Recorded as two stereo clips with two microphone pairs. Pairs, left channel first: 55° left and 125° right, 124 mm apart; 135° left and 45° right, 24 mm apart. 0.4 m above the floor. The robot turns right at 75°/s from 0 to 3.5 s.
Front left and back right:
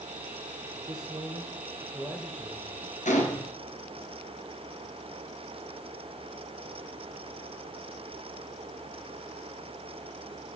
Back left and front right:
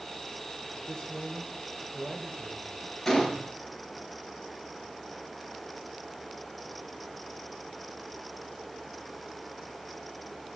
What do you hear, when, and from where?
0.7 s a man speaking: 165° right, 2 m; by 3.0 s straight ahead, 2 m
3.0 s a gunshot: 55° left, 2.5 m; by 3.5 s 90° left, 2.5 m